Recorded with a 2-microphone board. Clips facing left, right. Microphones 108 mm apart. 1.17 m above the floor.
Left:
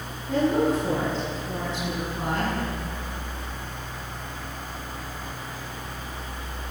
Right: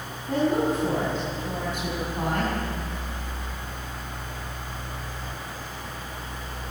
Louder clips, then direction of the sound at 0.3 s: Left 1 dB; 55° right (ahead or behind).